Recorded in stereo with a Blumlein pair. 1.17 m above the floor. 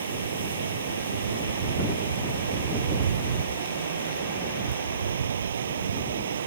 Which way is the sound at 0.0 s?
70° right.